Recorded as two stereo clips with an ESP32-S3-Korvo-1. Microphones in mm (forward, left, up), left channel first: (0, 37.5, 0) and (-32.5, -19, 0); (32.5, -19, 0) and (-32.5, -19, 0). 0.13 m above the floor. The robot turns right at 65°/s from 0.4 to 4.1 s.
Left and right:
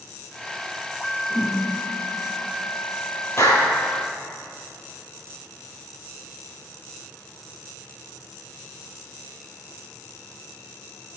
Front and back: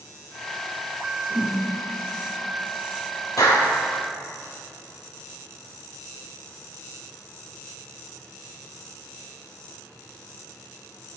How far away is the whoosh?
About 2 m.